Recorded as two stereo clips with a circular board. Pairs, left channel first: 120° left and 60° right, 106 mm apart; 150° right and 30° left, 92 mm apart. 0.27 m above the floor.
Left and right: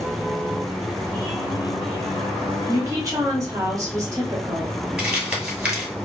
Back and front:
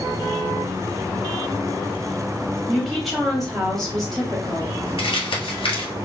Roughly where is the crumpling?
Behind right.